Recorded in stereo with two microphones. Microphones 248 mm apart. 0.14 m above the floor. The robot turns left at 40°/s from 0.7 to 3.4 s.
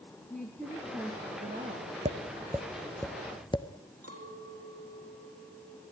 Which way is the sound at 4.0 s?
70° right (ahead or behind).